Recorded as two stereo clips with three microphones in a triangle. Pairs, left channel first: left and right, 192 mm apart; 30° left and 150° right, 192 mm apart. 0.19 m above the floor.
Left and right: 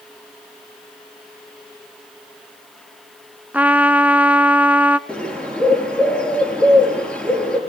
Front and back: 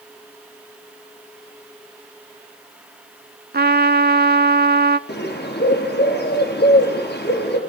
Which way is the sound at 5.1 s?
5° left.